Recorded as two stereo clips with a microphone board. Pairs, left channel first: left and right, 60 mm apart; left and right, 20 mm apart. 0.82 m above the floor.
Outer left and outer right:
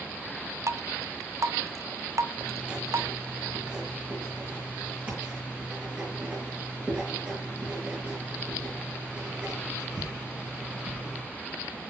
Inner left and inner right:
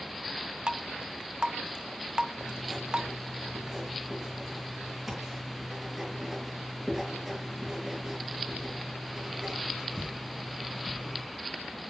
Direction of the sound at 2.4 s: 25° right (ahead or behind).